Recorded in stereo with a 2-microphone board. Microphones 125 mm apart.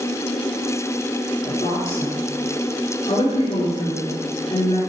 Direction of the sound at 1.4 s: 60° left (ahead or behind).